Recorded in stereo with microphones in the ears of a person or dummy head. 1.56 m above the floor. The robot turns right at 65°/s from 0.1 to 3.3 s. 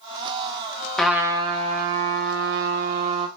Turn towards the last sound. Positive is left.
turn(degrees=-35)